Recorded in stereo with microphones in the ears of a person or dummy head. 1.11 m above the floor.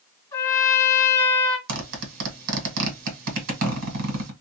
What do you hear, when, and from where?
0.3 s a trumpet: 15° left (ahead or behind), 1.6 m
1.7 s a zipper: 50° right (ahead or behind), 1.4 m